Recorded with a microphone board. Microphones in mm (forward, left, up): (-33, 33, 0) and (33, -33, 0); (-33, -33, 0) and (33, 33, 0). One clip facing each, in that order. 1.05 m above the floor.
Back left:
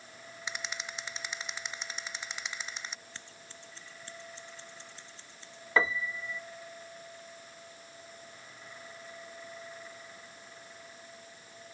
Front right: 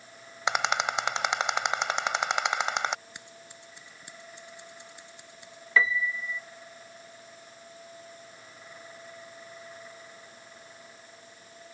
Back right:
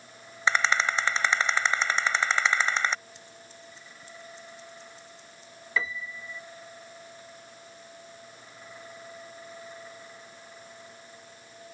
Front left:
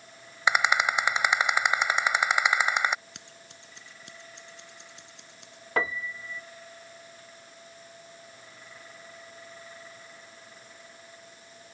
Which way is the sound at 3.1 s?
30° left.